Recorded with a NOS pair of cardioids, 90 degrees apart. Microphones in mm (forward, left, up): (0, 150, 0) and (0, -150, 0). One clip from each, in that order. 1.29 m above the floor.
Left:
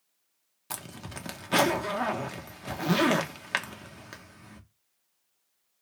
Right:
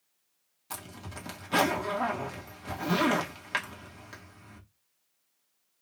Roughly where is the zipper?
Ahead left.